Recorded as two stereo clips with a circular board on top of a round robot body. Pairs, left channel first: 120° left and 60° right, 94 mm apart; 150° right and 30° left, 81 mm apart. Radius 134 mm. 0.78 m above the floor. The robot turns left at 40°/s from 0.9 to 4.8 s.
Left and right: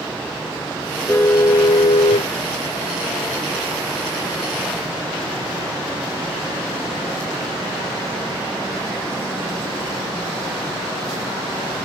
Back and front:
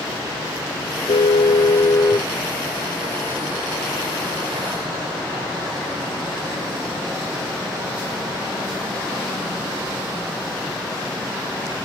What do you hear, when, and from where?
1.1 s a car horn: 165° right; by 2.3 s 145° left